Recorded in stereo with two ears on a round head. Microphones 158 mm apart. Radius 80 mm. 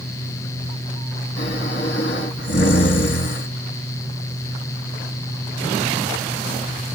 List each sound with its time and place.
1.4 s snoring: 65° left (ahead or behind), 5.5 m